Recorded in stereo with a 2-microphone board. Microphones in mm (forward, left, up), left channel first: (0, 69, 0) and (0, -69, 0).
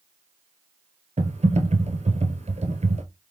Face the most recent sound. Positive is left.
turn(degrees=-55)  # may be behind; listen again after turning